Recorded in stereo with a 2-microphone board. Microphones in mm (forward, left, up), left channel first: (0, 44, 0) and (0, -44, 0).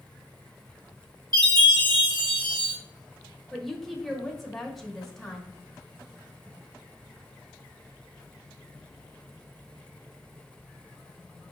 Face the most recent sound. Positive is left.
turn(degrees=0)  # may be behind; listen again after turning